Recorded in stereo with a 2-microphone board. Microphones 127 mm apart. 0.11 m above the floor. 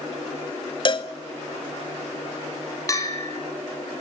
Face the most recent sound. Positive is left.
turn(degrees=25)  # may be behind; listen again after turning